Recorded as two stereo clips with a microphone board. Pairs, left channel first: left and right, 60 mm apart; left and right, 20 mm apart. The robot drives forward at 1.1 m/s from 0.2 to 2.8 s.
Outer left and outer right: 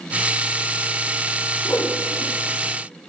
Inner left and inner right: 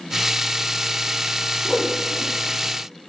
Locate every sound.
1.6 s a whoosh: 35° left (ahead or behind), 3 m; by 2.3 s 30° left (ahead or behind), 3.5 m